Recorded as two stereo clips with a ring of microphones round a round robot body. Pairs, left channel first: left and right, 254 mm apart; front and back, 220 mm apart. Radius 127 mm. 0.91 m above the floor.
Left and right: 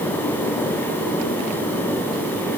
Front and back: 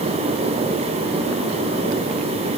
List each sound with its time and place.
Only background noise.